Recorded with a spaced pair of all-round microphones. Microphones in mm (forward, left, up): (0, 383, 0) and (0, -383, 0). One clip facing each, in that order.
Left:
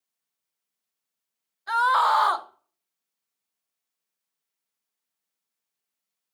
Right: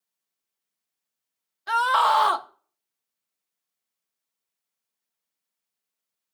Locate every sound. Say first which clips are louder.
1.7 s a scream: right 1 dB; 60° right (ahead or behind), 0.8 m